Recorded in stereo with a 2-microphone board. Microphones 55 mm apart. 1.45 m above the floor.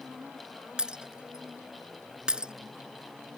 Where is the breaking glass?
15° right (ahead or behind).